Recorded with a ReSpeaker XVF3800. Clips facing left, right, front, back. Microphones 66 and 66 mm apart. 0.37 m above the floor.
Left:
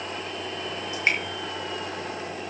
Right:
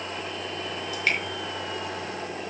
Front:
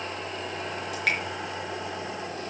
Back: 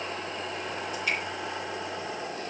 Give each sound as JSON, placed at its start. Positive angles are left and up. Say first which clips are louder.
{"t": 0.9, "sound": "dripping", "louder": "left 1 dB, front 4 dB", "azimuth_deg": 20, "distance_m": 5.0}